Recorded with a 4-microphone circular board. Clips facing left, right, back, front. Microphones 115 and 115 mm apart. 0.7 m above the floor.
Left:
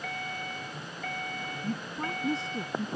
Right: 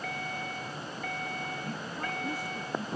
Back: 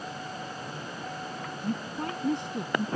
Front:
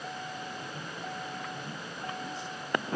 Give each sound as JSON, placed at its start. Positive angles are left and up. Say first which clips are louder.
{"t": 1.6, "sound": "a woman speaking", "louder": "left 2 dB, back 7 dB", "azimuth_deg": 150}